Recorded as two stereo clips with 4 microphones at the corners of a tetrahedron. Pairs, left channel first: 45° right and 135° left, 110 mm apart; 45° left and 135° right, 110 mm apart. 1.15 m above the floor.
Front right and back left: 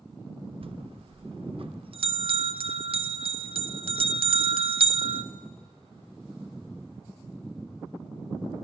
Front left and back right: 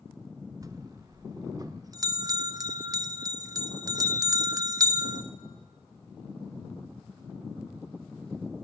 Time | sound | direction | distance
0.6 | a bell | 170° left | 0.5 m